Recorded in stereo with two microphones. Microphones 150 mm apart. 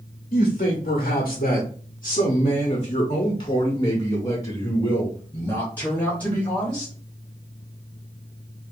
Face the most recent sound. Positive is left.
turn(degrees=10)  # may be behind; listen again after turning